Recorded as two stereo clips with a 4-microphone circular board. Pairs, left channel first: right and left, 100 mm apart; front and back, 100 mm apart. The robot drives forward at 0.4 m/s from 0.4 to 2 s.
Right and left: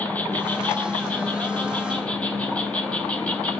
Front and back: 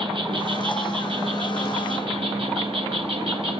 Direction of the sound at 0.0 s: 165° right.